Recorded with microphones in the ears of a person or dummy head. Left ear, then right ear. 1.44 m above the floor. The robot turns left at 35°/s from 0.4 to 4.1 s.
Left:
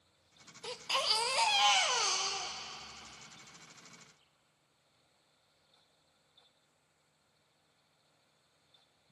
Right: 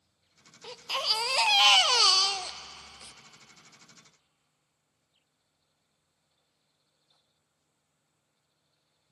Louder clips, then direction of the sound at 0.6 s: Right 3 dB; 10° left.